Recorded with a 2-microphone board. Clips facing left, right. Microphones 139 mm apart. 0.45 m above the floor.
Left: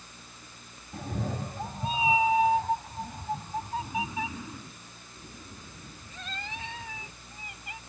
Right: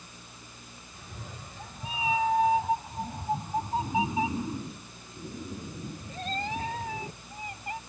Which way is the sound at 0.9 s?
75° left (ahead or behind).